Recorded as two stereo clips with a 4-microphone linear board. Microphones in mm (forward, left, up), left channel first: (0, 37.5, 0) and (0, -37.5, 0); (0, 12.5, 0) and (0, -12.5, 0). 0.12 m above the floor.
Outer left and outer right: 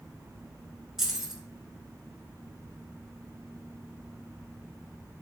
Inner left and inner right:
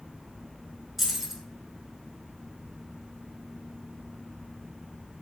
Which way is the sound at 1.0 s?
5° right (ahead or behind).